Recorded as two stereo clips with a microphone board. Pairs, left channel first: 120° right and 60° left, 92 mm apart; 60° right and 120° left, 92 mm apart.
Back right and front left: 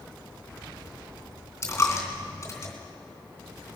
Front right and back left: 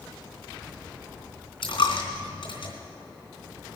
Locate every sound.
1.6 s a dropped coin: 65° right, 3 m